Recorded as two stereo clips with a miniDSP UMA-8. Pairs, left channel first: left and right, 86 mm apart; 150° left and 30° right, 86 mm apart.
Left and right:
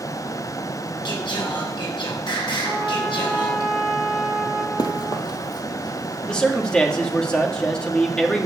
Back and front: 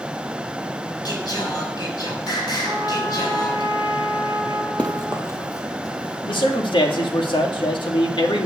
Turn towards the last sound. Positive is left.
turn(degrees=170)